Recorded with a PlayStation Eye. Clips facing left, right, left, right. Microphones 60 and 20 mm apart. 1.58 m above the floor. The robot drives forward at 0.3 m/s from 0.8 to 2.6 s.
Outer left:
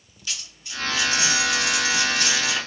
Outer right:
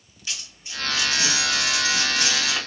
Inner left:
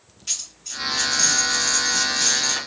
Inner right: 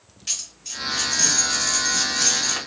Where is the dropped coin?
25° right (ahead or behind), 1.6 m.